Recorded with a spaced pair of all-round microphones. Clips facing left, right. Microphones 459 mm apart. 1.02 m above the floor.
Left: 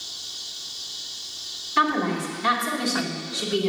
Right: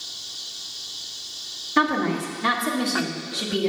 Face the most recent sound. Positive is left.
turn(degrees=-70)  # may be behind; listen again after turning